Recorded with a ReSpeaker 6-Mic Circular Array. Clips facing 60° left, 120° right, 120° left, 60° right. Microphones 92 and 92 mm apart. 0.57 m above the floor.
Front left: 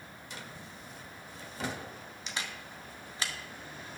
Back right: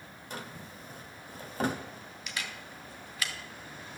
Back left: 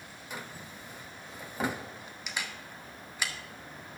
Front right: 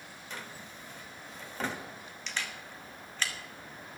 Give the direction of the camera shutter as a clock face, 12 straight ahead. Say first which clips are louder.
Even, even; 10 o'clock.